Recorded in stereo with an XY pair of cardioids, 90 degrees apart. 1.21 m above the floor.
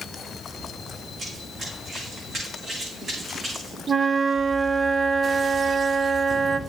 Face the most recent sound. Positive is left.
turn(degrees=-40)